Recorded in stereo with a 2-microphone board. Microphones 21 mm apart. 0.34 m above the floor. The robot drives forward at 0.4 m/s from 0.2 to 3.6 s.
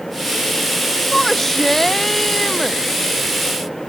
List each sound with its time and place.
1.1 s a shout: 15° left (ahead or behind)